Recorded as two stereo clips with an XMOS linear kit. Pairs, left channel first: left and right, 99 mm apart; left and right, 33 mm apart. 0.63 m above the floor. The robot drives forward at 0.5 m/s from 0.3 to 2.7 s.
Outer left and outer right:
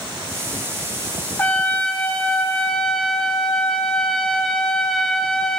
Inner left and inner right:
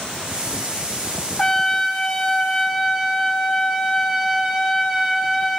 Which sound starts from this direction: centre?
A trumpet, at 1.4 s.